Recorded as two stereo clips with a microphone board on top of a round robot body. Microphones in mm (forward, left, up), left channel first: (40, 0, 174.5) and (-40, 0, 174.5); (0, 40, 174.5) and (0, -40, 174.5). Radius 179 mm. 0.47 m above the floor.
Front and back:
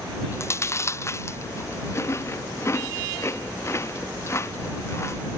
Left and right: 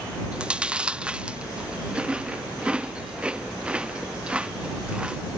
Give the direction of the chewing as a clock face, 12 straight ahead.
1 o'clock.